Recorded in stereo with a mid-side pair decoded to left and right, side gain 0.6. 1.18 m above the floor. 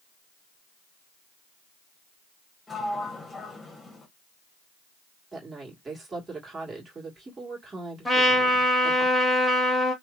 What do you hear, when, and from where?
2.7 s a sliding door: 10° left, 1.1 m
5.3 s a woman speaking: 25° right, 1.6 m
8.1 s a trumpet: straight ahead, 1.3 m